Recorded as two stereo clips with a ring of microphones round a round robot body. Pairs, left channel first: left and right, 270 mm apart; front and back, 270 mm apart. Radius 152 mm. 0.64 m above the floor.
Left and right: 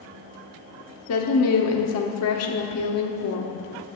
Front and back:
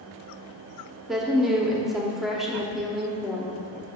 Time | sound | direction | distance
1.1 | a woman speaking | 90° left | 1.2 m